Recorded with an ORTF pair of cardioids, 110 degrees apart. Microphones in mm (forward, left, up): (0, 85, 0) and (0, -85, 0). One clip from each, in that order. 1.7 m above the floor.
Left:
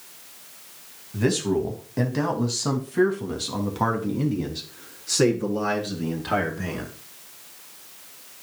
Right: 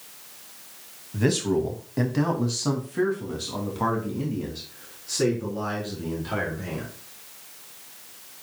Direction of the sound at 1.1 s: 5° right.